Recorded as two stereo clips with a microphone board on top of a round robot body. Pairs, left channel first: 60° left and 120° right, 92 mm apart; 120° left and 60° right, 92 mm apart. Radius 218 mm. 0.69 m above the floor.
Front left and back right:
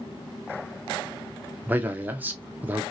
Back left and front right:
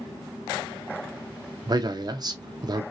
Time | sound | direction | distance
1.7 | a man speaking | 55° right | 0.8 m